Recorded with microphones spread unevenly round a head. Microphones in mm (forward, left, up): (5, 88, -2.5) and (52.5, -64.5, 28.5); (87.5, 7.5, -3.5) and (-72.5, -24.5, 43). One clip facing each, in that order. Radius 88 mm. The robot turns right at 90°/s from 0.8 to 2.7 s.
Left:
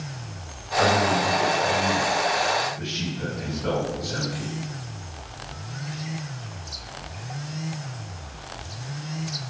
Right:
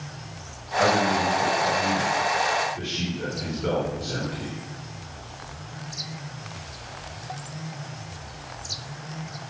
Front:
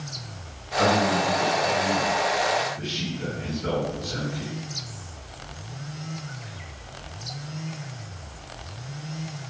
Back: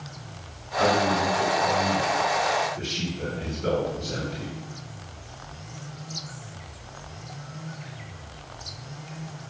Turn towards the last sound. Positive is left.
turn(degrees=-125)